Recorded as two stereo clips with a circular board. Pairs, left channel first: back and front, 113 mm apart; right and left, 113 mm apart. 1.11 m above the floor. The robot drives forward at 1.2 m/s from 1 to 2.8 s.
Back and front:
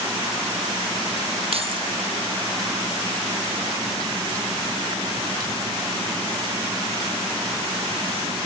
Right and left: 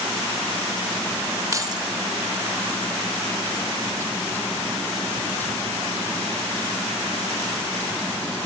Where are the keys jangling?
30° left, 1.0 m; by 1.8 s 45° left, 0.7 m.